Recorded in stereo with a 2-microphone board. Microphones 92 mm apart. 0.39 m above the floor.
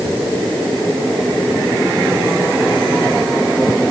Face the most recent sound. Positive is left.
No sound to turn to.